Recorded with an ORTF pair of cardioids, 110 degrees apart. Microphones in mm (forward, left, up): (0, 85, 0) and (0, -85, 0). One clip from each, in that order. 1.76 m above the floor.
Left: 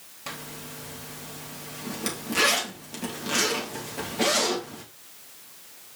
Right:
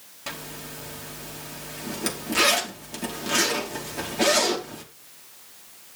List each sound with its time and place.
0.3 s a zipper: 10° right, 2.5 m